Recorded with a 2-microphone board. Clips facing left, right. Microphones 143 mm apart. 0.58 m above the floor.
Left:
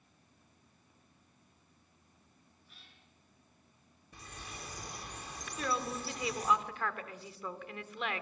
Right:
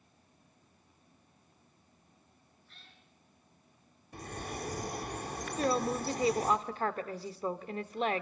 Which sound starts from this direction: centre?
A cat meowing, at 2.7 s.